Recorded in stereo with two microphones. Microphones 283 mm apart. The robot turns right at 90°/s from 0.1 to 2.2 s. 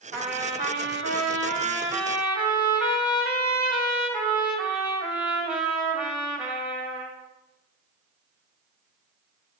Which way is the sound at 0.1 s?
170° left.